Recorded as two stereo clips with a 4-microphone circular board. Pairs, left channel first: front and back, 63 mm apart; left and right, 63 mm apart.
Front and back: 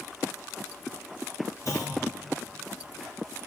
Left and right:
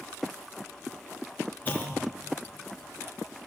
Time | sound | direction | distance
1.6 | a clunk | 30° left | 1.5 m